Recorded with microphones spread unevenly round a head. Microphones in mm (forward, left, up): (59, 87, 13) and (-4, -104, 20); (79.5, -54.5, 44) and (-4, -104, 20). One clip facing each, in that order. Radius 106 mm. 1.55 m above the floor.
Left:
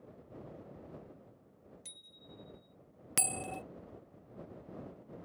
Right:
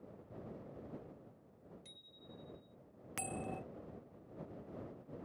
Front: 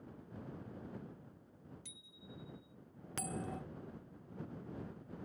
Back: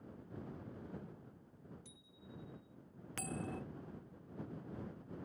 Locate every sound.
1.9 s a bicycle bell: 45° left
3.2 s a bell: 90° left